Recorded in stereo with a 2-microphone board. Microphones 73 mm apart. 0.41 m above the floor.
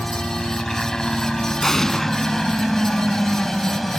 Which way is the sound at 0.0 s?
5° left (ahead or behind).